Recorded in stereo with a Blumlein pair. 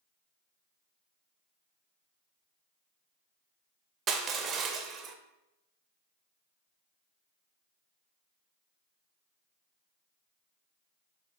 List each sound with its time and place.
4.1 s crushing: 25° right, 0.8 m